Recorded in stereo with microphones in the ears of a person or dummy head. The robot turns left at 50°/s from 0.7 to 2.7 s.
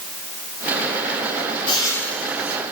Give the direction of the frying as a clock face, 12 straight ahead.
11 o'clock.